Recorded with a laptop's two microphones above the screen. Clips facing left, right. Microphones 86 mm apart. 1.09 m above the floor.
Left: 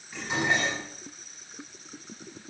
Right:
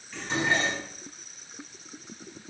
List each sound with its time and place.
0.1 s dishes clattering: 10° left (ahead or behind), 5 m